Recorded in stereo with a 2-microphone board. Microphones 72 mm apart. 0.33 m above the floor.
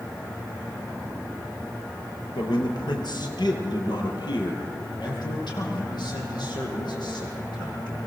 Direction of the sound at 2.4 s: 75° left (ahead or behind).